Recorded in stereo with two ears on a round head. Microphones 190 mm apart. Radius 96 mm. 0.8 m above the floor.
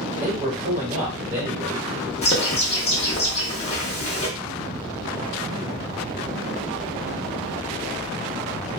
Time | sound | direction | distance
0.2 | a man speaking | 35° right (ahead or behind) | 1.3 m
2.2 | a bird | 30° left (ahead or behind) | 0.8 m